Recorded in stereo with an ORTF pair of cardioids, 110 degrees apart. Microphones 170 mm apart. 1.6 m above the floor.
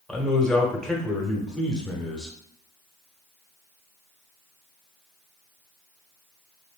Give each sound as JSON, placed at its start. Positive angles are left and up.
{"t": 0.1, "sound": "a man speaking", "azimuth_deg": 5, "distance_m": 0.9}